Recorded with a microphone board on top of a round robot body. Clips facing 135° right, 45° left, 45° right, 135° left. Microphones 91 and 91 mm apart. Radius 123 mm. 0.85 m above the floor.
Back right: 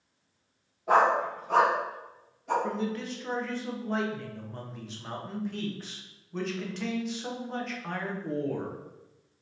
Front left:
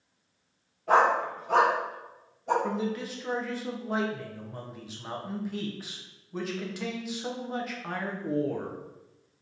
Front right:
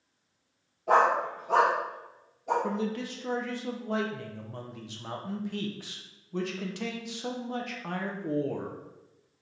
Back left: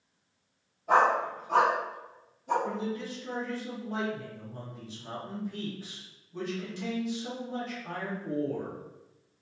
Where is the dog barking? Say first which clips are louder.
Even, front right 1 dB; 60° right, 0.7 m; by 2.5 s 15° right, 1.5 m.